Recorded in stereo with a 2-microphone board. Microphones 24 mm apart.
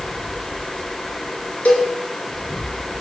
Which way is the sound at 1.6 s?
75° left (ahead or behind).